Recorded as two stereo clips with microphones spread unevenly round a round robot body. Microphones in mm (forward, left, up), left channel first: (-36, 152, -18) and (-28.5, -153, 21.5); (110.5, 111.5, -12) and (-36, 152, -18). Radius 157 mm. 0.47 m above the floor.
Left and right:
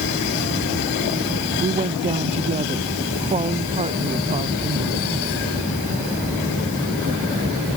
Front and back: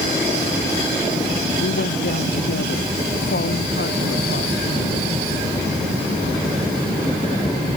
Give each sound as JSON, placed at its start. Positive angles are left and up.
{"t": 1.6, "sound": "a woman speaking", "azimuth_deg": -15}